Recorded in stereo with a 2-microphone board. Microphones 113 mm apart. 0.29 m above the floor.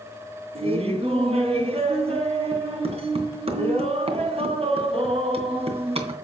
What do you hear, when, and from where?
0.6 s laughter: 60° right (ahead or behind), 2.5 m